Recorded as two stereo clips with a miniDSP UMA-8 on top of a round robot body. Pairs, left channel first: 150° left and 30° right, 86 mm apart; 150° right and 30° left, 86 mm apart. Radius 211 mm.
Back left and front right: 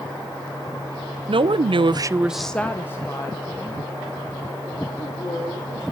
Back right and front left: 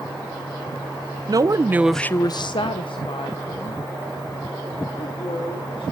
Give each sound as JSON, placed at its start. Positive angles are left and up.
{"t": 1.3, "sound": "a woman speaking", "azimuth_deg": -15, "distance_m": 1.1}